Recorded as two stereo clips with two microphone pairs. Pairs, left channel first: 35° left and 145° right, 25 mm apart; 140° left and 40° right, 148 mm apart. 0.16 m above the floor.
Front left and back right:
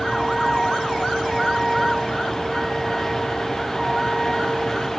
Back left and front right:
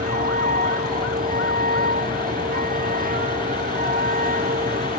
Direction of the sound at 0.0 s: 45° right.